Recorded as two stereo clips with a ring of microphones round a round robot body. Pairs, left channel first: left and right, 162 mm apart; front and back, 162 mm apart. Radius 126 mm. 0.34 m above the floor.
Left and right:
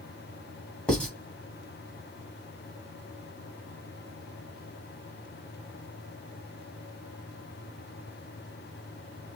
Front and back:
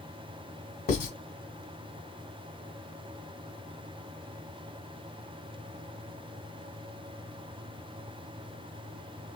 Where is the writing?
10° left, 2 m.